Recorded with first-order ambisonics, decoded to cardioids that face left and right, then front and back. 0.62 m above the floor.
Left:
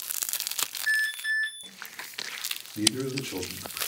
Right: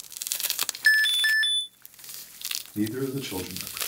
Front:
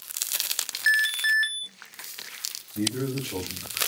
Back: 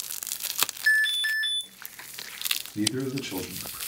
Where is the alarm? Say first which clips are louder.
Right 7 dB, front 1 dB; 65° right, 0.5 m.